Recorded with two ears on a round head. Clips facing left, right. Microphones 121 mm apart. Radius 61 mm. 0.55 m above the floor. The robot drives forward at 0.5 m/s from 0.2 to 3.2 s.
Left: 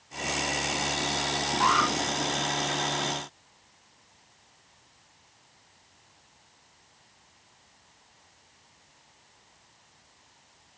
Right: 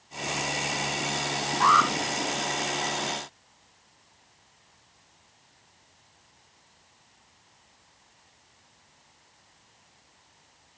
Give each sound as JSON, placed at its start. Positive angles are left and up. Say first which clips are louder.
{"t": 1.6, "sound": "an alarm", "louder": "right 3 dB", "side_deg": 5, "distance_m": 5.0}